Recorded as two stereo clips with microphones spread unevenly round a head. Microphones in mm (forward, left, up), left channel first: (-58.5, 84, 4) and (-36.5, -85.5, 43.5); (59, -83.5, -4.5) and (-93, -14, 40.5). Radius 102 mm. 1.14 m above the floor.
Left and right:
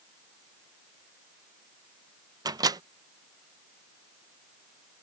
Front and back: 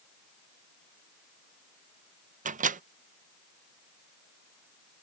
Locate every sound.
2.5 s a microwave: 155° right